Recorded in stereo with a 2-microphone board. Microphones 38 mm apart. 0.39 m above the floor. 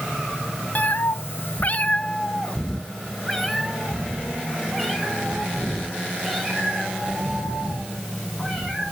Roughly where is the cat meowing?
Left.